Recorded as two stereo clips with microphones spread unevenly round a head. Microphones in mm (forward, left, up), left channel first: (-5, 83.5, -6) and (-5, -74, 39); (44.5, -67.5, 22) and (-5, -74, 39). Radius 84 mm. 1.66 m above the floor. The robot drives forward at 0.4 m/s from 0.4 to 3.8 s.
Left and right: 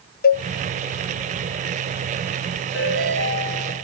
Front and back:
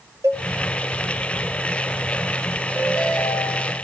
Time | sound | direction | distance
0.2 | a cowbell | 125° left | 0.6 m
2.7 | a ringtone | 80° left | 9 m